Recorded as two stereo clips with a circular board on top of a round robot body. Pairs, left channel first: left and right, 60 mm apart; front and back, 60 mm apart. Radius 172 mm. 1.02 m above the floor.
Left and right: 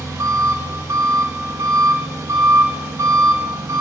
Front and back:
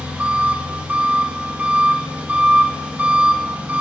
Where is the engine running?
115° right, 3.5 m.